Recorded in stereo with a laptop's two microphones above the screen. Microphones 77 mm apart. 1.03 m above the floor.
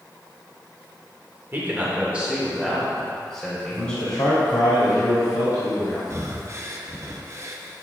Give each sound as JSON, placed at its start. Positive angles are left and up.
{"t": 1.5, "sound": "a man speaking", "side_deg": -30, "distance_m": 2.5}
{"t": 3.7, "sound": "a man speaking", "side_deg": 65, "distance_m": 2.5}
{"t": 6.1, "sound": "breathing", "side_deg": -40, "distance_m": 1.0}